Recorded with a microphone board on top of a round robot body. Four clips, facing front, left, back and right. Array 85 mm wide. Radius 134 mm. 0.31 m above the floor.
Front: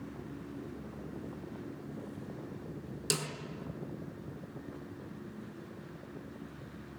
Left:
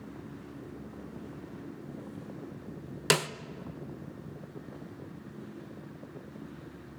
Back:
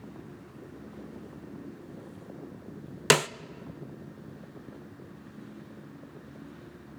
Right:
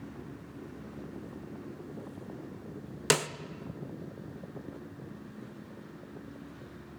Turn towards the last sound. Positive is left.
turn(degrees=175)